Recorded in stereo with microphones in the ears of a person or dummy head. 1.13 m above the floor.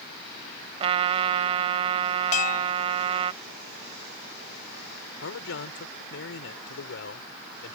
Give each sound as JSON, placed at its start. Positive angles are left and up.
{"t": 0.8, "sound": "a trumpet", "side_deg": -30}
{"t": 2.3, "sound": "a bell", "side_deg": 35}
{"t": 5.2, "sound": "a man speaking", "side_deg": 65}